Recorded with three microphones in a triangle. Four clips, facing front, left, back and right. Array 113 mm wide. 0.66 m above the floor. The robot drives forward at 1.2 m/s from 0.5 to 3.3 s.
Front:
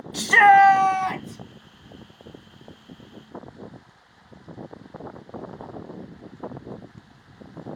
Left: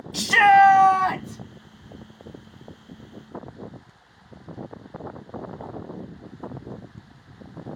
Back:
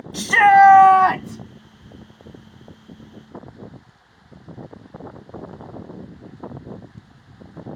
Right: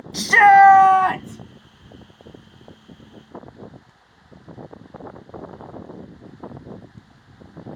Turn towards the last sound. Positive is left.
turn(degrees=-175)